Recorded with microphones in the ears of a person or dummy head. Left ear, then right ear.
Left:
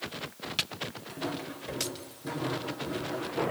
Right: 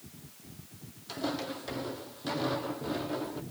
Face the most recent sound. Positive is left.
turn(degrees=-15)  # may be behind; listen again after turning